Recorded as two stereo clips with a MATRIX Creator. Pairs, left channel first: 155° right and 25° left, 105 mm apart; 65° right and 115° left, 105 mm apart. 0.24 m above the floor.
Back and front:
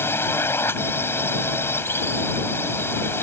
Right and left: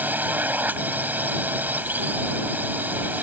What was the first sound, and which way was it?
A drone, 165° left.